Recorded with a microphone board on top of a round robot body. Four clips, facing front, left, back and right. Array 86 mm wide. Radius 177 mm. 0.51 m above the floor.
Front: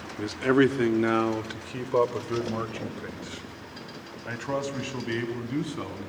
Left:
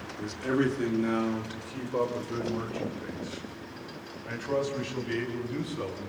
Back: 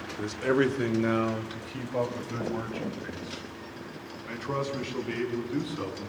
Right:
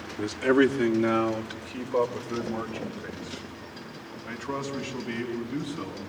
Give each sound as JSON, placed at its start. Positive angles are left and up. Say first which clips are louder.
{"t": 0.2, "sound": "a man speaking", "louder": "right 6 dB, front 4 dB", "azimuth_deg": -40, "distance_m": 2.0}